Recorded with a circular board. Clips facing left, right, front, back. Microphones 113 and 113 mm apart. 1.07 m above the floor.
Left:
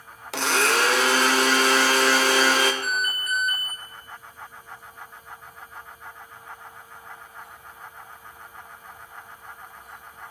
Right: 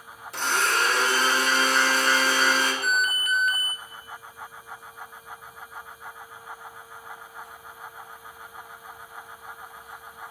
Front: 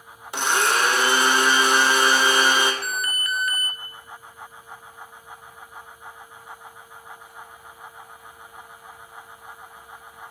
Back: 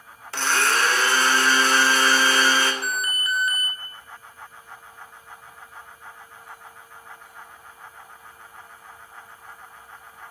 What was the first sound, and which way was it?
A blender, 75° left.